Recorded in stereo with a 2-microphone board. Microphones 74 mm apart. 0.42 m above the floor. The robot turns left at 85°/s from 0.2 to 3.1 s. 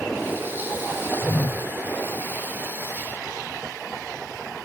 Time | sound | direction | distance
1.2 | a whoosh | 10° left (ahead or behind) | 0.9 m